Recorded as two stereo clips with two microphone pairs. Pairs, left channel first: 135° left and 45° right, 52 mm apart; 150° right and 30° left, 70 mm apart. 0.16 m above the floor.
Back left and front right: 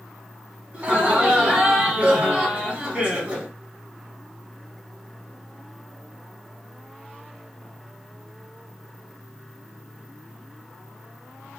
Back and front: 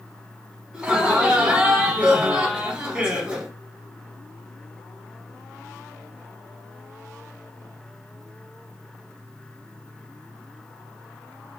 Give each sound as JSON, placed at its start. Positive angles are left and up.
{"t": 0.7, "sound": "laughter", "azimuth_deg": -25, "distance_m": 1.2}